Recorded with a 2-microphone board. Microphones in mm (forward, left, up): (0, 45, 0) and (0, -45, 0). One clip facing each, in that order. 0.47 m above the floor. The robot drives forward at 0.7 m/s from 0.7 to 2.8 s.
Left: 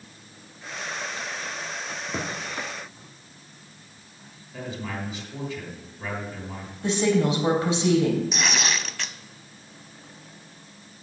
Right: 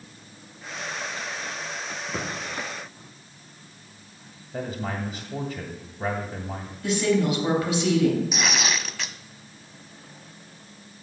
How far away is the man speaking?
About 1.8 m.